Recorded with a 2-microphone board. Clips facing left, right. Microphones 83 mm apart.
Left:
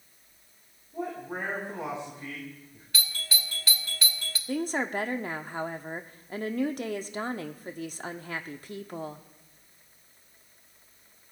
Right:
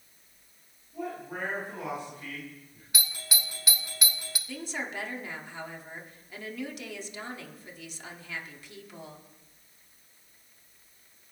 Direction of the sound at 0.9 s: 30° left (ahead or behind).